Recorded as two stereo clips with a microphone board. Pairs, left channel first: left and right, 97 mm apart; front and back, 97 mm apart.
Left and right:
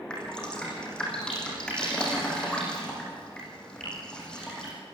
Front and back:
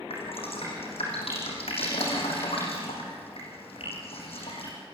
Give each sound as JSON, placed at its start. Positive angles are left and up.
{"t": 0.1, "sound": "dripping", "azimuth_deg": 10, "distance_m": 6.0}